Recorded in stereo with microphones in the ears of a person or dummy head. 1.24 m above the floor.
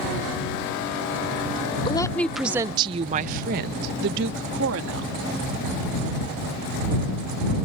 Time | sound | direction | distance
1.9 | a woman speaking | 25° left (ahead or behind) | ?